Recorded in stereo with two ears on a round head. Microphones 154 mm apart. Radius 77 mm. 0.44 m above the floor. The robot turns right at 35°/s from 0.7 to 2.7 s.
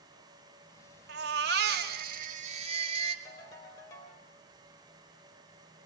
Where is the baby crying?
95° right, 1.5 m; by 3.1 s 40° right, 1.5 m.